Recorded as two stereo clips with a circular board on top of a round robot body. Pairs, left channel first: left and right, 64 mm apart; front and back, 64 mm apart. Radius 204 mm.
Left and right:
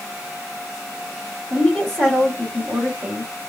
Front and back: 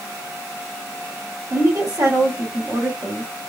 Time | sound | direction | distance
1.5 | a woman speaking | straight behind | 2.0 m